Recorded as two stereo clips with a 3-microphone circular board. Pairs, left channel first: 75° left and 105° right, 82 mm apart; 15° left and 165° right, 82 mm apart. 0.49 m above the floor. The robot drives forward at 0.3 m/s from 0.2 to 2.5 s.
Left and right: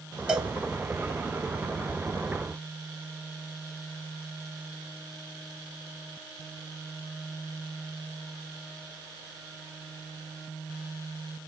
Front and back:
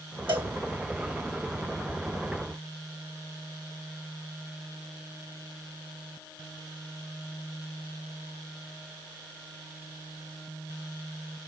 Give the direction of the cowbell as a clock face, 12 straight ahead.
6 o'clock.